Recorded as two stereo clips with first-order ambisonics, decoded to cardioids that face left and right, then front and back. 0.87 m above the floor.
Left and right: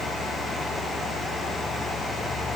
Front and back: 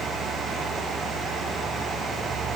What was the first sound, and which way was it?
Only background noise.